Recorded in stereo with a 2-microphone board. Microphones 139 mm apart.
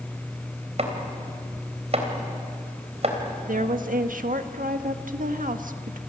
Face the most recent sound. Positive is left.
turn(degrees=-80)